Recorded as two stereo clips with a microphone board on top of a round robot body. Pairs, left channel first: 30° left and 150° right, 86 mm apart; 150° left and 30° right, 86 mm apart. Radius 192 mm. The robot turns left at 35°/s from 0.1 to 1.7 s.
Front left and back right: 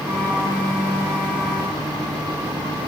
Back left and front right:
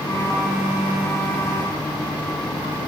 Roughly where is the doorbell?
No doorbell in this recording.